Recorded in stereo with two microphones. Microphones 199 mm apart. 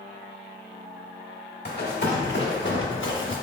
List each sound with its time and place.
1.6 s running footsteps: 55° left (ahead or behind), 1.5 m; by 3.3 s 85° left, 1.0 m